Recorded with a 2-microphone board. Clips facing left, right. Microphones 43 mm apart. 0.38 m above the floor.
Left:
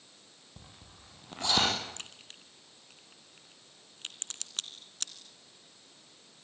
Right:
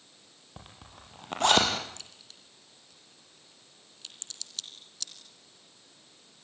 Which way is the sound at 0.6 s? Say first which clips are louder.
Right 6 dB; 65° right (ahead or behind).